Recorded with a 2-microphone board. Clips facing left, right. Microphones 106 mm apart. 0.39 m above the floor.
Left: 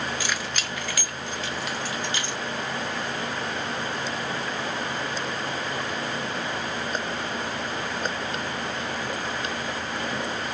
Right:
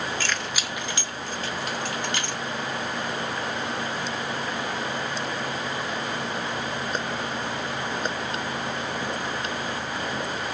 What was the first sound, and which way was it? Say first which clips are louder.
Keys jangling: even; 15° left (ahead or behind).